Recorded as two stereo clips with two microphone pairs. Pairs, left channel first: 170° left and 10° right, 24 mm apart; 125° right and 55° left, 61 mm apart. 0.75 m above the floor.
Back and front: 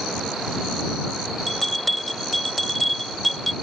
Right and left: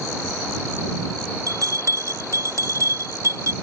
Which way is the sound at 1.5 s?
80° left.